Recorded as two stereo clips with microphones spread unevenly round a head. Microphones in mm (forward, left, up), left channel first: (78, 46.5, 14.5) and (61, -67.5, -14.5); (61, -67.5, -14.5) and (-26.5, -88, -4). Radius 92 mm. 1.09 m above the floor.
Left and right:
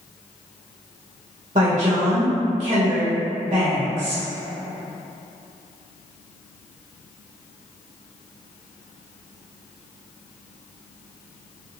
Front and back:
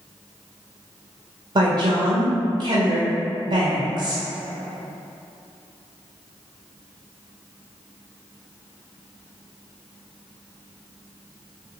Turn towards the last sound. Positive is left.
turn(degrees=-135)